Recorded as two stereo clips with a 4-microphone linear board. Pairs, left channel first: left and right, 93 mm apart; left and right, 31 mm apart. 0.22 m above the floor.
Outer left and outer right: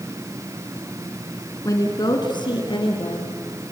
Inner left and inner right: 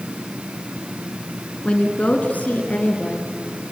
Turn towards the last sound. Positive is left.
turn(degrees=70)  # may be behind; listen again after turning